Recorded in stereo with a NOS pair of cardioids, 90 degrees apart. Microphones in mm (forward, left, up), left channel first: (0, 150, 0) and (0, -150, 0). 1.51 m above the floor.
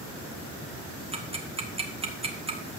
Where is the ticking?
20° right, 1.8 m.